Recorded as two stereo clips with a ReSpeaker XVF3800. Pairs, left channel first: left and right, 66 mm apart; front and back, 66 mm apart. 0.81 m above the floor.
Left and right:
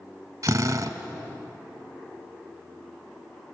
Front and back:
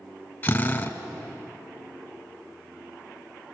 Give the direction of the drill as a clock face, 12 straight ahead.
2 o'clock.